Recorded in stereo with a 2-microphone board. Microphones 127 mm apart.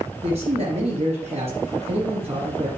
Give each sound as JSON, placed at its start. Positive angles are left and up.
{"t": 0.2, "sound": "a man speaking", "side_deg": -50, "distance_m": 2.5}